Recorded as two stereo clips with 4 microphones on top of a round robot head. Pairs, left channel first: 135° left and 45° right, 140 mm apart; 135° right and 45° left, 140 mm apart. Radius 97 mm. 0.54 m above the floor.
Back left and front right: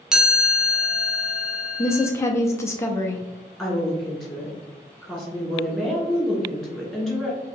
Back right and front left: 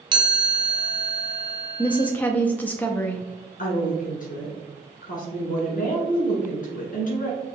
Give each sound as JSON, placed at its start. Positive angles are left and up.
{"t": 0.1, "sound": "a chime", "azimuth_deg": 35, "distance_m": 1.0}
{"t": 1.8, "sound": "a woman speaking", "azimuth_deg": 165, "distance_m": 0.6}
{"t": 3.6, "sound": "a woman speaking", "azimuth_deg": -135, "distance_m": 2.0}